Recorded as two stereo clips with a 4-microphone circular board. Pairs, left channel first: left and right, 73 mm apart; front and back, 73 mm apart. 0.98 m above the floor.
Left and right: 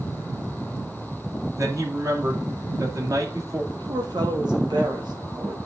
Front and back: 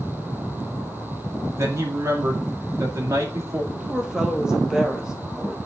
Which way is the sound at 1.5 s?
135° right.